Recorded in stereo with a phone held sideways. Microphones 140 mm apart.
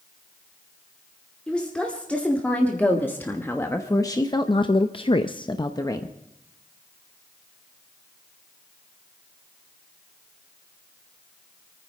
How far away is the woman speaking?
About 2.5 m.